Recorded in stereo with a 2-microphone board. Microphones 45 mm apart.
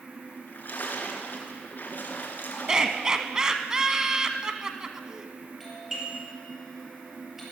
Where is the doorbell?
10° right (ahead or behind), 5.5 m.